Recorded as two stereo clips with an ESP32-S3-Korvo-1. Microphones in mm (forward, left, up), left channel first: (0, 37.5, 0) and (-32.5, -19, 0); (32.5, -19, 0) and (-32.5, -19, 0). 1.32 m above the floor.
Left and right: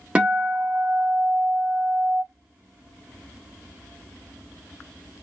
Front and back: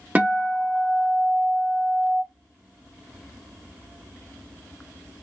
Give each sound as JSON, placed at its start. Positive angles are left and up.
{"t": 0.1, "sound": "a guitar", "azimuth_deg": -165, "distance_m": 1.0}